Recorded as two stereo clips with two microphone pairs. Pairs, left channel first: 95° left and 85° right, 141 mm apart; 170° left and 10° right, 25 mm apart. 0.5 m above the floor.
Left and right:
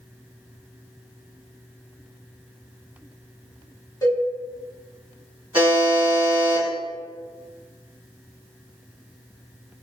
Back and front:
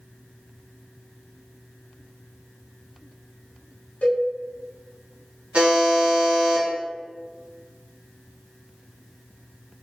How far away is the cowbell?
About 1.1 m.